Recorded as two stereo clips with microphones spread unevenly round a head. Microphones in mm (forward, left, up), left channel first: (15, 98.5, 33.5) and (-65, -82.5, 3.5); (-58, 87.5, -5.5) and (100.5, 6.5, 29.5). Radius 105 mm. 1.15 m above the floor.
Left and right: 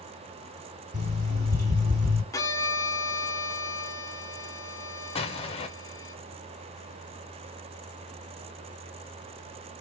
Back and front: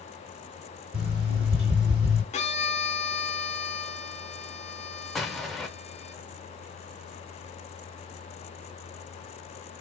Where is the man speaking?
No man speaking in this recording.